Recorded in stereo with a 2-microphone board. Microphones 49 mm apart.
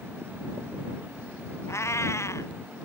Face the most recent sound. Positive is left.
turn(degrees=70)  # may be behind; listen again after turning